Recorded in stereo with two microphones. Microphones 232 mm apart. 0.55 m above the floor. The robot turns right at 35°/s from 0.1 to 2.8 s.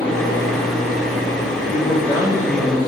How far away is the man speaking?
About 6 m.